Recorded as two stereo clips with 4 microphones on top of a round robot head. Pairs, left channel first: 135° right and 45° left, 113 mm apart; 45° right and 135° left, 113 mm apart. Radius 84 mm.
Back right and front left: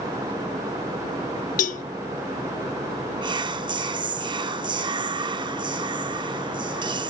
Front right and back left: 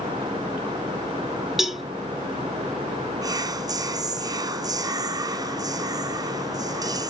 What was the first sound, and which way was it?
A cowbell, 140° right.